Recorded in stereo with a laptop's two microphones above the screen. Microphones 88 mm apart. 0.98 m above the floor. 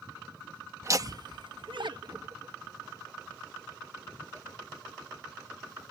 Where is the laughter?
35° right (ahead or behind); by 5.9 s 15° right (ahead or behind).